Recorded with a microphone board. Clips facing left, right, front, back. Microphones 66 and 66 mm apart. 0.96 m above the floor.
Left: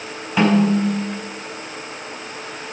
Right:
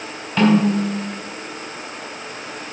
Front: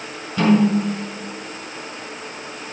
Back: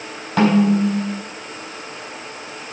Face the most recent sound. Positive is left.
turn(degrees=170)